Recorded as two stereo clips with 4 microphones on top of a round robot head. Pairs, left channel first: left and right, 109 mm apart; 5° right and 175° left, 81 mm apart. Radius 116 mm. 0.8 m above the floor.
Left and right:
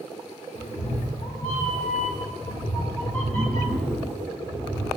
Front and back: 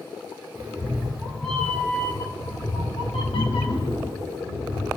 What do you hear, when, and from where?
0.6 s a cat meowing: 105° left, 1.7 m; by 4.9 s 15° right, 2.5 m